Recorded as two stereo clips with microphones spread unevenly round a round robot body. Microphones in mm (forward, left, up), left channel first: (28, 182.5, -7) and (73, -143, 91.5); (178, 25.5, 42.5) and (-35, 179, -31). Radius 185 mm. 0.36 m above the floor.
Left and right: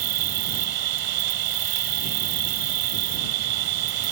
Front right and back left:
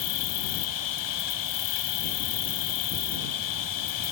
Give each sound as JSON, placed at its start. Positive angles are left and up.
{"t": 0.0, "sound": "an insect", "azimuth_deg": -60}